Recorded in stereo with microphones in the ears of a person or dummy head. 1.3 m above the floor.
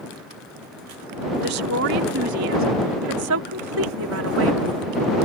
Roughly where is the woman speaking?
Right.